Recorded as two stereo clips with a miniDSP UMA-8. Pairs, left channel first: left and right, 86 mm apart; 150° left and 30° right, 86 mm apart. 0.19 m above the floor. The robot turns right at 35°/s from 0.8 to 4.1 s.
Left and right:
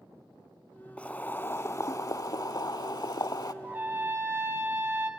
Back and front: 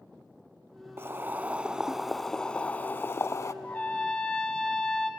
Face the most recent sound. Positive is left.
turn(degrees=-135)